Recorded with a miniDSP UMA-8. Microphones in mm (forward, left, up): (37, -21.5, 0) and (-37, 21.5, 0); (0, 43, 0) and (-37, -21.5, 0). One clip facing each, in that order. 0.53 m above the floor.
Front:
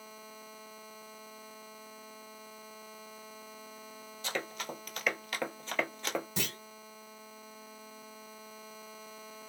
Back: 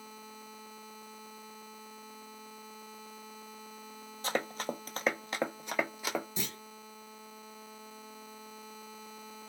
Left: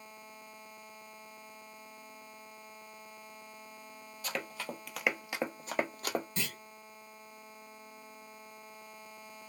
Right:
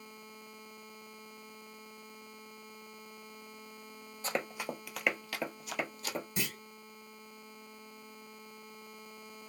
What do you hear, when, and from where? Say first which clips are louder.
4.2 s running footsteps: back 4 dB, right 3 dB; 170° right, 0.7 m; by 6.3 s 65° left, 0.8 m
6.4 s a clunk: front 2 dB, right 1 dB; 45° right, 1.0 m